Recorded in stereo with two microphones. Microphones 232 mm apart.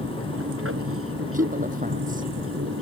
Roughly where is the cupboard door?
No cupboard door in this recording.